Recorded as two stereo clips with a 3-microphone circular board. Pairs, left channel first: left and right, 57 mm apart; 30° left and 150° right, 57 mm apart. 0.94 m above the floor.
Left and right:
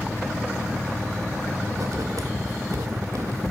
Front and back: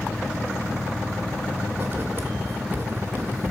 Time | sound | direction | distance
1.7 | writing | 95° right | 2.5 m